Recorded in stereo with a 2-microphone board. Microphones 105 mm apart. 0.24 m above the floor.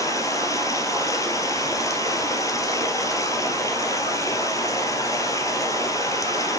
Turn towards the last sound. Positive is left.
turn(degrees=35)  # may be behind; listen again after turning